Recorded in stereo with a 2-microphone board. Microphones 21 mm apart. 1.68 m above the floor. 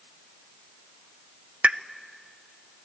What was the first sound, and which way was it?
A pop, 75° right (ahead or behind).